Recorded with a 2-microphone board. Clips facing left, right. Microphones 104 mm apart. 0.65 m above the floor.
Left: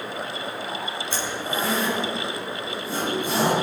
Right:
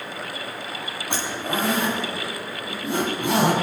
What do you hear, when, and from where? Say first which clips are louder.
1.1 s a zipper: right 3 dB; 65° right (ahead or behind), 3.5 m